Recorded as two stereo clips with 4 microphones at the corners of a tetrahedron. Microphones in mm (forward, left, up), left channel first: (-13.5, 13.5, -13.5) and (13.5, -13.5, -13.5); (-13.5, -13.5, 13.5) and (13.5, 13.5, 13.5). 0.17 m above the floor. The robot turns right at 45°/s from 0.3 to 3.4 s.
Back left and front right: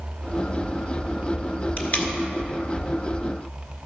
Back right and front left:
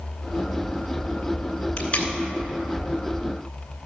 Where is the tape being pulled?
165° left, 1.5 m; by 2.1 s 175° right, 1.5 m.